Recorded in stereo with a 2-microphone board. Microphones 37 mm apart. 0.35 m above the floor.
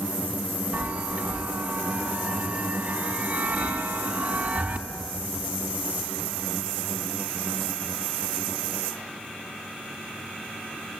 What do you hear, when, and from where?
0.7 s a chime: 30° right (ahead or behind), 3 m